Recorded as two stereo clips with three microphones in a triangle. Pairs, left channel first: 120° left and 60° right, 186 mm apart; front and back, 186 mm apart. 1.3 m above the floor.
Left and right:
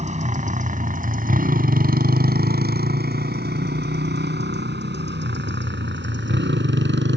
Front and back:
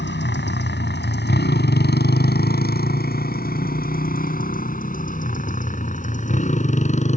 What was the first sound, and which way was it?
A motorcycle, 10° right.